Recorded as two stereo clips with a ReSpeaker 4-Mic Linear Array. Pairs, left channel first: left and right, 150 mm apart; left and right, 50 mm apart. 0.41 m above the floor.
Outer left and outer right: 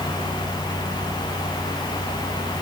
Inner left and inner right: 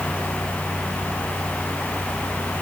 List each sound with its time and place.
Only background noise.